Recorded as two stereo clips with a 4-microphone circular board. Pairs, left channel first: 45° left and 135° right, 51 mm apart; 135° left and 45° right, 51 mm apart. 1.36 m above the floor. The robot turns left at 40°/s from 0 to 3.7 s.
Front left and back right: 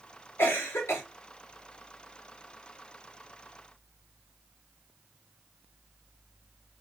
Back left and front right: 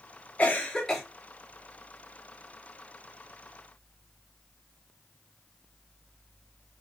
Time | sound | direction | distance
0.4 | a cough | 70° left | 1.0 m